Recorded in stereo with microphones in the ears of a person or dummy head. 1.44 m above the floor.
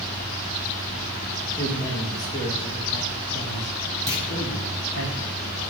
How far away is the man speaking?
About 2.0 m.